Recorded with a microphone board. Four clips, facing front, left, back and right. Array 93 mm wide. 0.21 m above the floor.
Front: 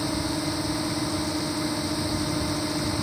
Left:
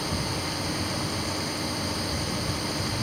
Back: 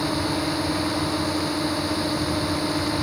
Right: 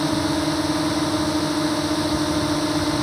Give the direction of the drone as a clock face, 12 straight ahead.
3 o'clock.